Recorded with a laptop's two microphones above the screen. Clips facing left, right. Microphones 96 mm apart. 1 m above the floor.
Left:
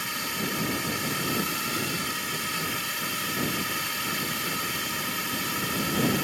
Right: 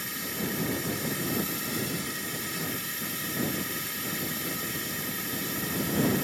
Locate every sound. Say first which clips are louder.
0.0 s a drone: left 2 dB; 75° left (ahead or behind)